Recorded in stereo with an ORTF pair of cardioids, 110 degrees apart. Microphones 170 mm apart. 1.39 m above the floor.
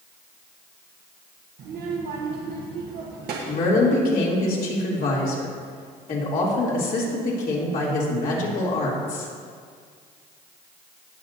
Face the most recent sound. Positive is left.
turn(degrees=60)